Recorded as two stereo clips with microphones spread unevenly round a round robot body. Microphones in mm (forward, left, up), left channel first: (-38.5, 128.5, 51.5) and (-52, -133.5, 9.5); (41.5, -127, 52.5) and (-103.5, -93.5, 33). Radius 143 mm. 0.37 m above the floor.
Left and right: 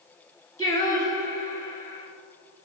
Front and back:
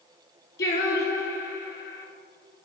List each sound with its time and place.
0.6 s singing: 10° left, 1.0 m